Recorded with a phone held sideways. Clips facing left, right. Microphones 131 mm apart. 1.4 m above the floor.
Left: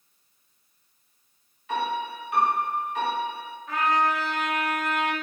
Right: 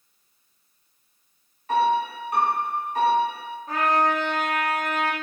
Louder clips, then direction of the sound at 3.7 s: Right 2 dB; 35° right (ahead or behind).